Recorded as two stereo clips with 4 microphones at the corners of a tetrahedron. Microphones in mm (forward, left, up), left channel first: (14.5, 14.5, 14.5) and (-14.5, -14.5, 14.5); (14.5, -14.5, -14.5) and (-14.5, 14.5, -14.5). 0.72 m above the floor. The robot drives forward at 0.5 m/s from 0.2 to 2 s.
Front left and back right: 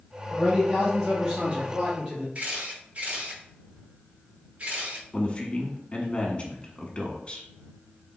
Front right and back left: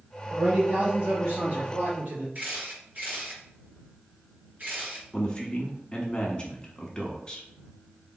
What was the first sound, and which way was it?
A man speaking, 145° left.